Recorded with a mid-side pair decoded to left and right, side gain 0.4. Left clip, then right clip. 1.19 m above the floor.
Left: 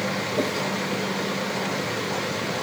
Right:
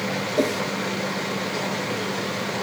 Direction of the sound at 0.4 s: 35° right.